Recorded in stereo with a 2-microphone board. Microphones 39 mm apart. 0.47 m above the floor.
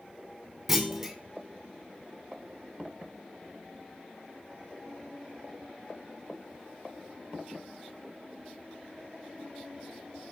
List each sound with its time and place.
0.7 s a clunk: 10° right (ahead or behind), 0.8 m